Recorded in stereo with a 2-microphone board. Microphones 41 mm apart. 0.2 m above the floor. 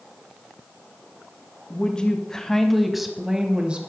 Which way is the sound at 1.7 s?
30° left (ahead or behind).